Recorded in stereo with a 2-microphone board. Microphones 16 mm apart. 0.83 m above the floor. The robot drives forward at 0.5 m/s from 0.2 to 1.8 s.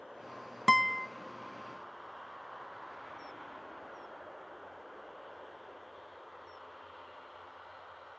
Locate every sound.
0.7 s a guitar: 5° left (ahead or behind), 0.6 m; by 1.1 s centre (ahead or behind), 0.7 m